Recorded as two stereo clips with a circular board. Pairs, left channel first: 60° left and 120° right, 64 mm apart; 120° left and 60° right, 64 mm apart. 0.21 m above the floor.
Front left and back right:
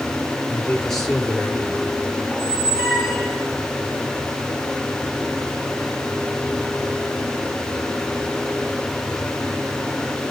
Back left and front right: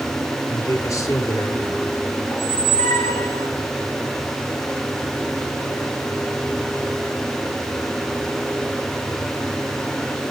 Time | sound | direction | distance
0.5 | a man speaking | 140° left | 3.5 m
2.3 | a squeak | 160° left | 3 m